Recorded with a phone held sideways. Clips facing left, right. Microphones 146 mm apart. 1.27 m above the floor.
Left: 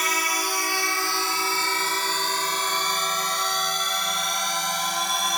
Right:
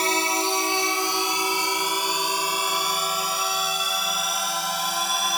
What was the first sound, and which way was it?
A drone, 30° right (ahead or behind).